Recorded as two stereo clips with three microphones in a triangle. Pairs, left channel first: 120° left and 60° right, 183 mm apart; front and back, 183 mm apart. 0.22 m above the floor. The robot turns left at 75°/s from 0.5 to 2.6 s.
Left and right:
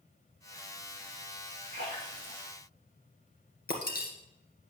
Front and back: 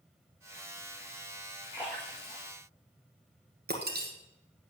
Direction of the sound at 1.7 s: 100° left.